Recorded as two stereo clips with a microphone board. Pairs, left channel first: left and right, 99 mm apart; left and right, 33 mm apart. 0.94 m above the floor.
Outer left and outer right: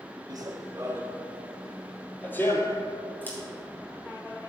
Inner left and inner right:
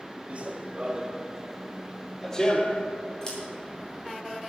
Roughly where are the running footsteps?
Right.